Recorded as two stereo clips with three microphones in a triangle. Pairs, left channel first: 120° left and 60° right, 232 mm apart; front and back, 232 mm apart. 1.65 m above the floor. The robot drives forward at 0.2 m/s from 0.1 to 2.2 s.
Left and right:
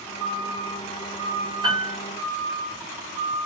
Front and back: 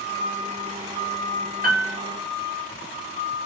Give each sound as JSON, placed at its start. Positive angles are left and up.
{"t": 1.6, "sound": "a piano", "azimuth_deg": -130, "distance_m": 1.0}